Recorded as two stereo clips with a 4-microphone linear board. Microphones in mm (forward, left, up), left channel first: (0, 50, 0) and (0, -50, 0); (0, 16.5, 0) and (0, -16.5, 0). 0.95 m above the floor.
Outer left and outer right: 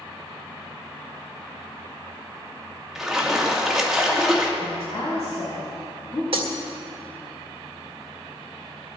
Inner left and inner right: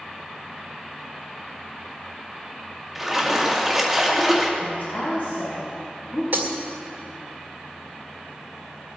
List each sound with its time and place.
3.0 s a splash: 5° right (ahead or behind), 1.8 m
4.6 s a woman speaking: 60° left (ahead or behind), 6 m
6.3 s breaking glass: 60° right (ahead or behind), 1.9 m